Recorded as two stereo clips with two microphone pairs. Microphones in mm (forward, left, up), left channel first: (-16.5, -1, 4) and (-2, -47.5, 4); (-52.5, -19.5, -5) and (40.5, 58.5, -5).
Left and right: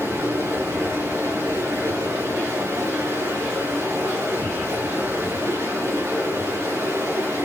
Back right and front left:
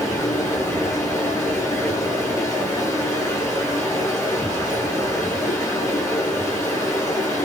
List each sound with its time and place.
0.0 s running water: 75° right, 7 m